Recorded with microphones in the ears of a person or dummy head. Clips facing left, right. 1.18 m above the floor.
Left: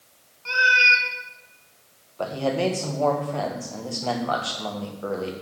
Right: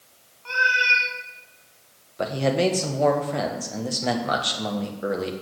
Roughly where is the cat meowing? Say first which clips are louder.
Left 2 dB; left.